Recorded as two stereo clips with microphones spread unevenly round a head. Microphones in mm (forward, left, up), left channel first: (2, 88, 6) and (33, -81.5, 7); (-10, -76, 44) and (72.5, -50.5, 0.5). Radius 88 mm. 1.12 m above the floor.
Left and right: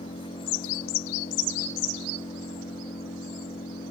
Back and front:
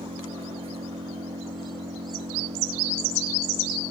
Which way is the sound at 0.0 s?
40° left.